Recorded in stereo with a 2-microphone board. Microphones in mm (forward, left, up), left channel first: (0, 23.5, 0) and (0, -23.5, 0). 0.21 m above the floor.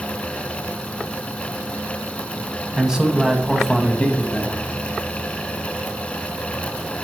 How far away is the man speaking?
About 1.8 m.